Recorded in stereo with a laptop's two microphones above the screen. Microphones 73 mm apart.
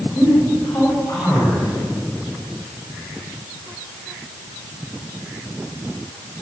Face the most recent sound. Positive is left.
turn(degrees=45)  # may be behind; listen again after turning